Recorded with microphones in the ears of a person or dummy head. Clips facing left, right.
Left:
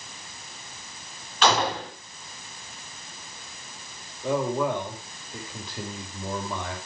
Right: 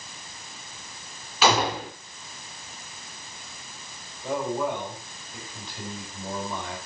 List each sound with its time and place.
1.4 s a gunshot: 5° right (ahead or behind), 1.1 m
4.2 s a man speaking: 60° left (ahead or behind), 4.5 m